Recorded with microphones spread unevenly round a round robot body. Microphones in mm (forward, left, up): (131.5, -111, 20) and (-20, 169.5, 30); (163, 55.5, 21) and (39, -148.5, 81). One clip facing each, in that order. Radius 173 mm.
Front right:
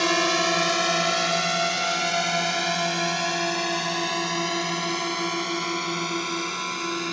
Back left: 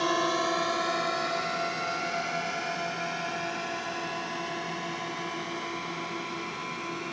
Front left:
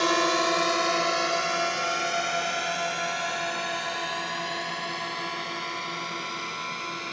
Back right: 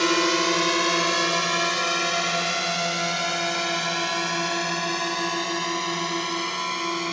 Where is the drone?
65° right; by 7.1 s 95° right.